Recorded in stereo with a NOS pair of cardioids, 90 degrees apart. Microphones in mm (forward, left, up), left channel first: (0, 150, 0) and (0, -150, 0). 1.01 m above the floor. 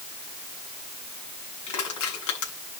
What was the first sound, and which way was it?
Crushing, 70° left.